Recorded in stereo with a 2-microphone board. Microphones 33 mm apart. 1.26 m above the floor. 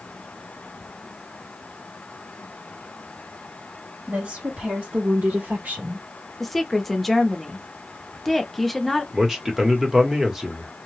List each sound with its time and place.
4.1 s a woman speaking: 55° right (ahead or behind), 1.7 m; by 6.1 s 50° right (ahead or behind), 0.9 m
6.4 s a woman speaking: 5° left (ahead or behind), 0.7 m
9.1 s a man speaking: 15° right (ahead or behind), 1.0 m